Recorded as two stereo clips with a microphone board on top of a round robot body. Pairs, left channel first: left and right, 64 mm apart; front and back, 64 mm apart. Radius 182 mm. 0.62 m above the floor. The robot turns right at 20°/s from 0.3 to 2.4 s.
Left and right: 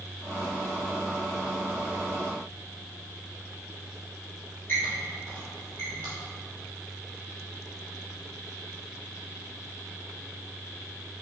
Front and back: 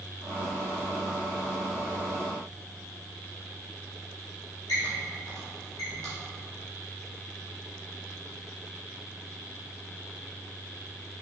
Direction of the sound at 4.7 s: 25° left.